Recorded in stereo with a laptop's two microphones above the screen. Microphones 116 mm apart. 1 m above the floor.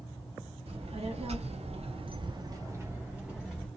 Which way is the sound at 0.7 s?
55° right (ahead or behind).